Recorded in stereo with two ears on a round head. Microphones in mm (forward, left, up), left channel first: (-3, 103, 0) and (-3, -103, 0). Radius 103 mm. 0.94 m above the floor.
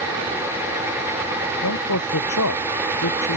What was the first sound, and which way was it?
A man speaking, 70° left (ahead or behind).